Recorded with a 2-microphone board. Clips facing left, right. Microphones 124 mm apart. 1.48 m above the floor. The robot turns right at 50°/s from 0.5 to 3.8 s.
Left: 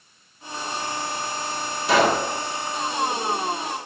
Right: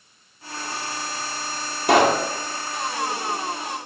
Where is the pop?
60° right (ahead or behind), 2 m; by 2.2 s 45° right (ahead or behind), 2 m.